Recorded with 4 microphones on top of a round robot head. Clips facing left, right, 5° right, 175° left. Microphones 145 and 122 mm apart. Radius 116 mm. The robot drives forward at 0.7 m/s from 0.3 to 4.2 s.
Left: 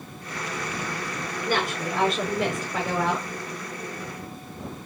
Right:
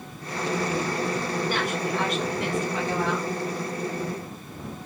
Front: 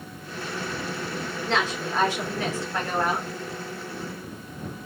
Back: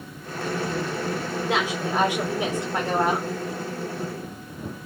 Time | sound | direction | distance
1.4 | a woman speaking | 95° left | 5 m